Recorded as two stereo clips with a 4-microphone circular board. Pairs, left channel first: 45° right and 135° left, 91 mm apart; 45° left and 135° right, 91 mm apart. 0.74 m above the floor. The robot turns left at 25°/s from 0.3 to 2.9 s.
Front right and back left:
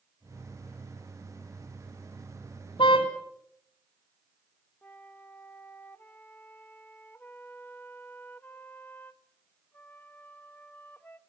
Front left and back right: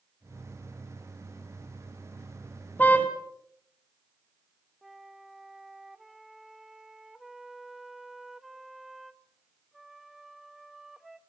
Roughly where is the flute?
Ahead right.